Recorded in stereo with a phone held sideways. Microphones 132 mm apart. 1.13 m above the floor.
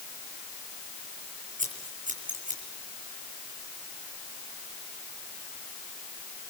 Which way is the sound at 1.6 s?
75° right (ahead or behind).